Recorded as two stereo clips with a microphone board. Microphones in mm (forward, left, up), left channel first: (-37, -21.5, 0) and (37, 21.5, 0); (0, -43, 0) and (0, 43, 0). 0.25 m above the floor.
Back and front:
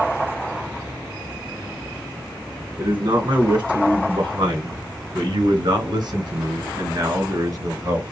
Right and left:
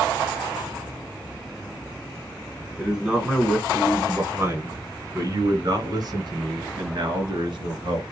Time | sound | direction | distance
2.8 | a man speaking | straight ahead | 2 m